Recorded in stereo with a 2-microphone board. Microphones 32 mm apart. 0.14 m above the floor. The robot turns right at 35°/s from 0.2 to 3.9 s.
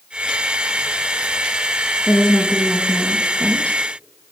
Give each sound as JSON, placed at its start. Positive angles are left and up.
{"t": 2.1, "sound": "a woman speaking", "azimuth_deg": 5, "distance_m": 3.0}